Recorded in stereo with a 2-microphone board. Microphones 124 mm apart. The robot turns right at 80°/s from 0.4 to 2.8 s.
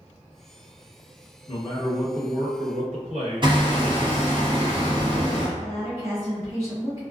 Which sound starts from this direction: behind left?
A man speaking, at 1.5 s.